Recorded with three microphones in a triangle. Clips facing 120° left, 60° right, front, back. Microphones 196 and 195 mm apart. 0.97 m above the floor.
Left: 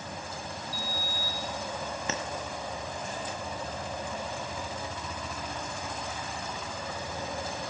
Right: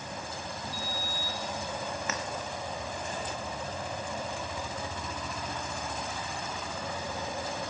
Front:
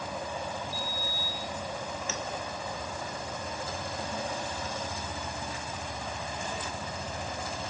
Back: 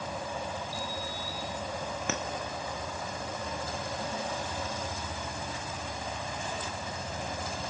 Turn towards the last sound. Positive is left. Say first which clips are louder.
# left 4 dB, back 5 dB
turn(degrees=180)